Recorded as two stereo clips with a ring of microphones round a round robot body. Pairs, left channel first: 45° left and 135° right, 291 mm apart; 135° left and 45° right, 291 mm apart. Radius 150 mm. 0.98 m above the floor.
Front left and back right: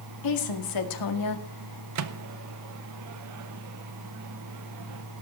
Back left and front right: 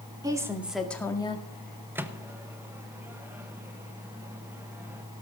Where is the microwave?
125° right, 0.9 m.